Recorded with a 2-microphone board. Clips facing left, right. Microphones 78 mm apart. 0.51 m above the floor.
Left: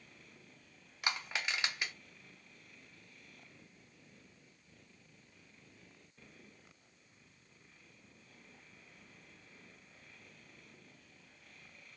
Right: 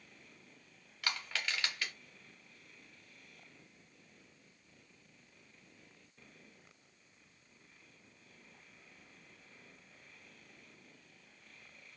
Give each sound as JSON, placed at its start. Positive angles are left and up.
{"t": 1.0, "sound": "crushing", "side_deg": 20, "distance_m": 0.7}